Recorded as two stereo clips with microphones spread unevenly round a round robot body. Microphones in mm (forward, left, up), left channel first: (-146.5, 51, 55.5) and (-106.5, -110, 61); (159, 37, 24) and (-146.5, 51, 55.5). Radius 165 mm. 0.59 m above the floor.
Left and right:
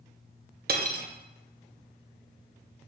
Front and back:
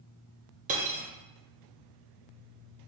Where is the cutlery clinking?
115° right, 0.5 m.